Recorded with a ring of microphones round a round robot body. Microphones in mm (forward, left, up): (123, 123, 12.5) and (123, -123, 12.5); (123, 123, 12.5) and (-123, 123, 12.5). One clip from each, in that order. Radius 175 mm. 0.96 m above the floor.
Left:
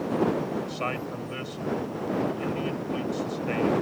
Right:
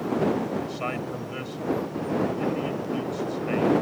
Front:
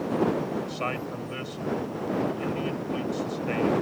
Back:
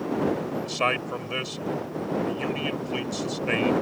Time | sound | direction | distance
0.6 | a man speaking | 170° left | ?